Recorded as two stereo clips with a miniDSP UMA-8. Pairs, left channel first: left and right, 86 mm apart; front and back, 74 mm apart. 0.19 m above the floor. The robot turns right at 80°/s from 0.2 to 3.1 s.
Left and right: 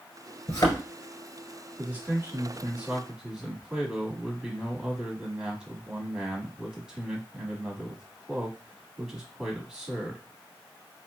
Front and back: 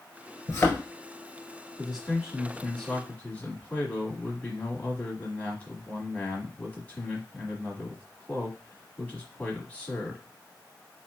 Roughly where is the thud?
Ahead left.